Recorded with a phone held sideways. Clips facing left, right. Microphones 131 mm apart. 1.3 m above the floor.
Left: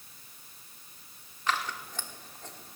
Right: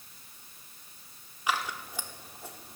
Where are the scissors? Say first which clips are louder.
Right 1 dB; 10° right (ahead or behind), 1.2 m.